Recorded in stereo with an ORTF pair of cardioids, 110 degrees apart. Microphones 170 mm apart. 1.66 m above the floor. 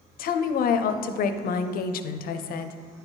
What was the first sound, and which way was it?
A woman speaking, 60° left.